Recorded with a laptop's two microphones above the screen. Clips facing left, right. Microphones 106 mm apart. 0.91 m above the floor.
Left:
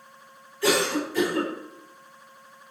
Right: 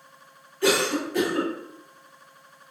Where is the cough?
60° right (ahead or behind), 1.6 m.